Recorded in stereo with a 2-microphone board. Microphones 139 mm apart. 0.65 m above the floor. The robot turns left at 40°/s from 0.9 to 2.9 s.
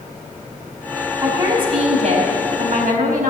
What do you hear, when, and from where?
1.2 s a woman speaking: 20° right, 5 m; by 3.3 s 90° right, 5 m